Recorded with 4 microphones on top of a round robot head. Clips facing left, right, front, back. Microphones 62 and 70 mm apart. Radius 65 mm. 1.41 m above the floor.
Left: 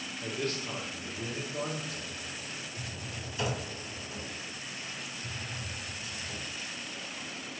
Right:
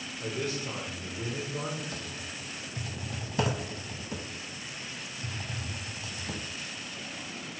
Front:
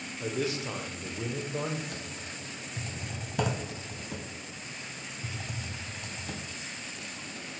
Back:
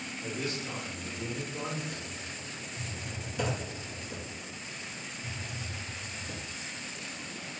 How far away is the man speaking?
About 0.8 m.